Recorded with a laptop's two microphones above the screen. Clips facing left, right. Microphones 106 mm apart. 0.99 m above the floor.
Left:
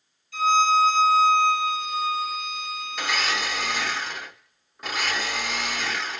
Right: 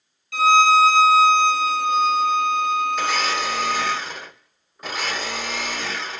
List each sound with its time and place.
0.3 s a violin: 75° right (ahead or behind), 0.5 m
3.0 s a blender: centre (ahead or behind), 1.5 m